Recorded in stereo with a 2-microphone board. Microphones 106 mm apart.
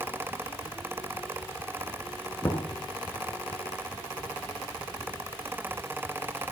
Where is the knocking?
30° left (ahead or behind), 1.2 m.